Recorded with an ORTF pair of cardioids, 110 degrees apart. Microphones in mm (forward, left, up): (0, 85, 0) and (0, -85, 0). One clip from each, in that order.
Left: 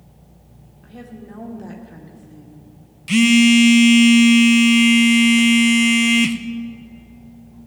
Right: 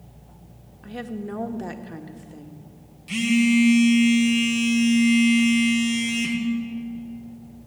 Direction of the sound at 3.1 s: 55° left.